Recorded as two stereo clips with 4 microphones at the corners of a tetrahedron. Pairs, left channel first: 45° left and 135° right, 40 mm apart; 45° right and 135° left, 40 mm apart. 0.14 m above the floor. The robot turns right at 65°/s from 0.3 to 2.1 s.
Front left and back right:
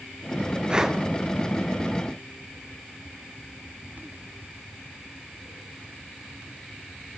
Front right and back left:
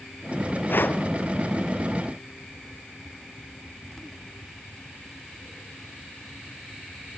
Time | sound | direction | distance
0.7 | breathing | 70° right | 1.5 m